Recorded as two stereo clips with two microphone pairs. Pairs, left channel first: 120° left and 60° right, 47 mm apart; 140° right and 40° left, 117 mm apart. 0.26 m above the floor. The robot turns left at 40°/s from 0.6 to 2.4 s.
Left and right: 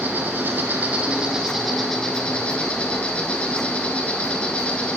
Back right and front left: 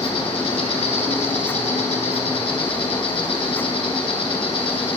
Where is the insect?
105° right, 1.1 m; by 5.0 s 175° right, 1.1 m.